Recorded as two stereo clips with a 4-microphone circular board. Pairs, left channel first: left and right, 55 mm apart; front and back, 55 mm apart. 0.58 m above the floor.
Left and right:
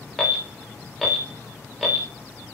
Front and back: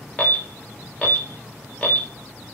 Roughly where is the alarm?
Ahead.